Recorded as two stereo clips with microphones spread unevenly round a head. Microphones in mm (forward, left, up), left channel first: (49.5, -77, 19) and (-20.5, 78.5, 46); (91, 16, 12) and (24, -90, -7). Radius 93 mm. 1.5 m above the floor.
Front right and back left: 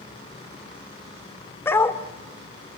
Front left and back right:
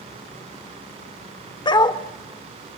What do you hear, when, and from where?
1.6 s a dog barking: 15° left, 1.8 m